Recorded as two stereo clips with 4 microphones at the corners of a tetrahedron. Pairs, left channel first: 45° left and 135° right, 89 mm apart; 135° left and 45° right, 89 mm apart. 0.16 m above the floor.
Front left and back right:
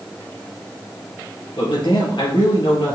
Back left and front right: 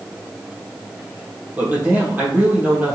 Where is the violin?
No violin in this recording.